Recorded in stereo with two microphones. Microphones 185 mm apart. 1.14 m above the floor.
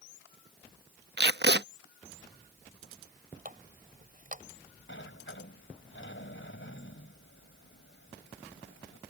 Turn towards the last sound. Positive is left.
turn(degrees=85)